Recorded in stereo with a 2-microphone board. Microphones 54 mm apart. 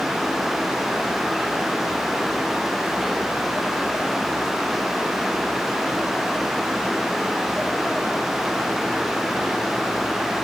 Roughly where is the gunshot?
I don't hear a gunshot.